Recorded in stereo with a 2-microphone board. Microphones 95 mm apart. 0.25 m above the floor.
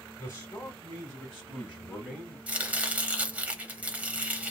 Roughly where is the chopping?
Centre.